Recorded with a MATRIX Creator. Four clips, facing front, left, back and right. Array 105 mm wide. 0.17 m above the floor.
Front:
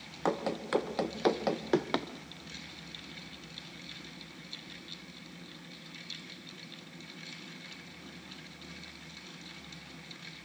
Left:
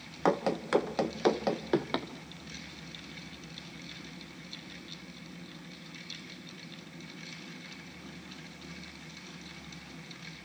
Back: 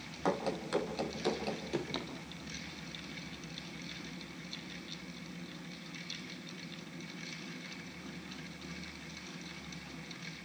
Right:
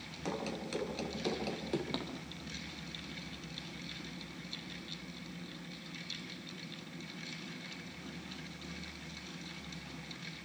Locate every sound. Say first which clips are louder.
0.2 s running footsteps: left 11 dB, front 2 dB; 75° left, 3 m; by 2.1 s 30° left, 2.5 m